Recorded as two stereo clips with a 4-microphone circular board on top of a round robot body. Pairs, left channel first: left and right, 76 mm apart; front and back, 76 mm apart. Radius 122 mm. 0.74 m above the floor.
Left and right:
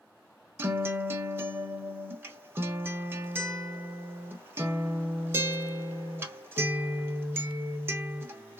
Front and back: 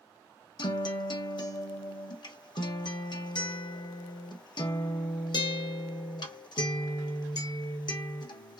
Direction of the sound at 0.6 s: 25° right.